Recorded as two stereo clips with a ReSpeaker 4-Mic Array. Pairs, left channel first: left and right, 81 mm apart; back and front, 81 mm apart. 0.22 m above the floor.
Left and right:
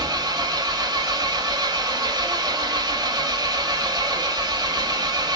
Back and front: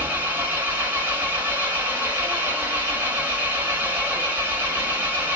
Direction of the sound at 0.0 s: 65° right.